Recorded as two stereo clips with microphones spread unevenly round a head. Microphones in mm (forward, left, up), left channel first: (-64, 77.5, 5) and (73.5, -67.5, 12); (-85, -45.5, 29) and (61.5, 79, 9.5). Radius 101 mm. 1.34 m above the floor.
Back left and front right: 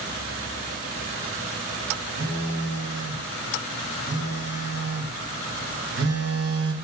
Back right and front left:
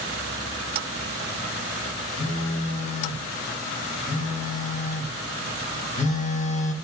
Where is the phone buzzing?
85° right, 1.9 m.